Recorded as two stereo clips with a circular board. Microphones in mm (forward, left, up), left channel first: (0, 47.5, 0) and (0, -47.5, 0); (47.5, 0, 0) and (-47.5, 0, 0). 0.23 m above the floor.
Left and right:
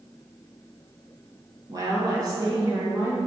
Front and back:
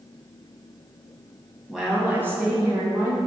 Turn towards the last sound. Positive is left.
turn(degrees=-140)